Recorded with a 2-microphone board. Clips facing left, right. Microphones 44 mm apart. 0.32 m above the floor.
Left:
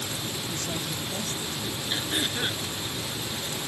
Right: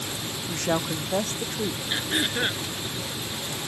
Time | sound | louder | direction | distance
0.5 | a woman speaking | right 6 dB | 60° right (ahead or behind) | ?
1.9 | throat clearing | right 1 dB | 25° right (ahead or behind) | ?